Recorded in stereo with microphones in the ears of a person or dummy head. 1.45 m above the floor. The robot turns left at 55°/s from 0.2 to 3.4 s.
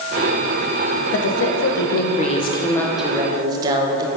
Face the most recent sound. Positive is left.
turn(degrees=-25)